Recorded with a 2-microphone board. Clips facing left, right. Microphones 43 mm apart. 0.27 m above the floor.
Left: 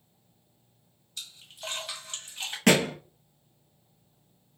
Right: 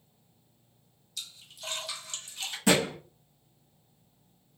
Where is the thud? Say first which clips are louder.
Left 3 dB; 85° left, 1.0 m.